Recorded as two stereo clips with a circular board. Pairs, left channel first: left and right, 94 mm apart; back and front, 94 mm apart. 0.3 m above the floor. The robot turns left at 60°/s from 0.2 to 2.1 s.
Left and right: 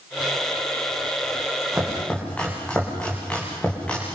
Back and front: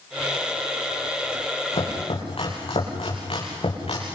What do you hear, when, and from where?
1.7 s chopping: 170° right, 8.5 m; by 4.2 s 170° left, 8.5 m